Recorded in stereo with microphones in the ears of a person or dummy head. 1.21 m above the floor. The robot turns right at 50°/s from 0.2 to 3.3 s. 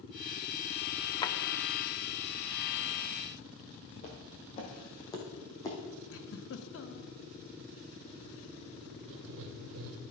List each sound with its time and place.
1.2 s a drawer: 25° left (ahead or behind), 0.7 m; by 1.4 s 20° left (ahead or behind), 0.7 m
4.0 s footsteps: 40° left (ahead or behind), 1.7 m; by 5.8 s 15° left (ahead or behind), 2.5 m
6.1 s a giggle: 65° left (ahead or behind), 1.0 m
9.1 s writing: 65° right (ahead or behind), 0.9 m